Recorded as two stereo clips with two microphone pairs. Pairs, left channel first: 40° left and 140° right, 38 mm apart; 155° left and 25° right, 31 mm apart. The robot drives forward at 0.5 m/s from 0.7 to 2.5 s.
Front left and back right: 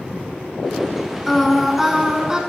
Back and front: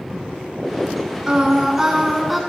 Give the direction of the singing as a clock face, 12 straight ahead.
1 o'clock.